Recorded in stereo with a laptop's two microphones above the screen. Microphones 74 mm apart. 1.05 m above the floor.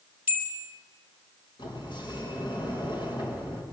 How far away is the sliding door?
About 4.5 m.